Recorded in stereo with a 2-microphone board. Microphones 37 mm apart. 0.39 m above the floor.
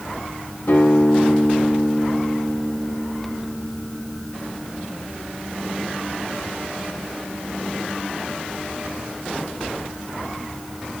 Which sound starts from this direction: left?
A guitar, at 0.7 s.